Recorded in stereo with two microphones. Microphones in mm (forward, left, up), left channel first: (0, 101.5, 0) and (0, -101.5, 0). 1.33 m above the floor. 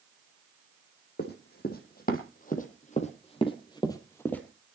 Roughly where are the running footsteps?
Left.